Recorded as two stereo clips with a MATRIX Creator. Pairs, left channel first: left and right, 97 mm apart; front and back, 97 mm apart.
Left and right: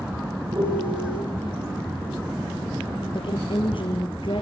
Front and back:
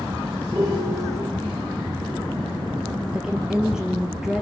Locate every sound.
0.5 s a piano: 120° right, 8 m
3.1 s a woman speaking: 100° left, 2.5 m